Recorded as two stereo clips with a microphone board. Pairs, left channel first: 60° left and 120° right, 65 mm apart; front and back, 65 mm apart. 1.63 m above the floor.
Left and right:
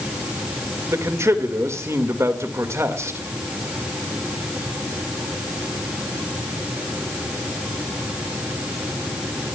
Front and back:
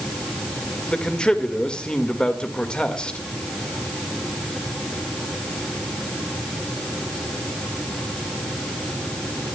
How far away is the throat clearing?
No throat clearing in this recording.